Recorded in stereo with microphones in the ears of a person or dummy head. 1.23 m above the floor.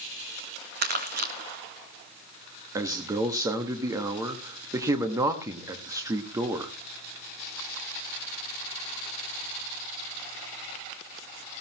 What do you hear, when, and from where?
0.8 s crumpling: 50° right (ahead or behind), 1.9 m
2.8 s a man speaking: 15° right (ahead or behind), 1.5 m